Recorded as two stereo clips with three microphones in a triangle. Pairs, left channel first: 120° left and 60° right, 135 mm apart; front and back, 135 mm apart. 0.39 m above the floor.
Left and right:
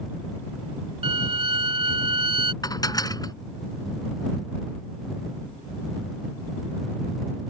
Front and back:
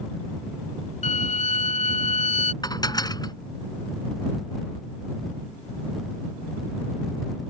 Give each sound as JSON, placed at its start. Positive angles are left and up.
{"t": 1.0, "sound": "a violin", "azimuth_deg": -15}
{"t": 2.6, "sound": "dishes clattering", "azimuth_deg": 60}